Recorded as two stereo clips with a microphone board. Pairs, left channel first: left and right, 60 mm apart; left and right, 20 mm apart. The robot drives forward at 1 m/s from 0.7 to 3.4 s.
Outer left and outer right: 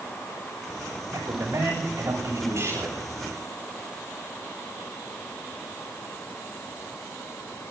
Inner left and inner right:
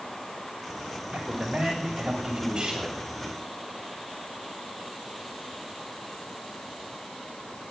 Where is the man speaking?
60° right (ahead or behind), 8.5 m; by 3.0 s 50° right (ahead or behind), 9.5 m.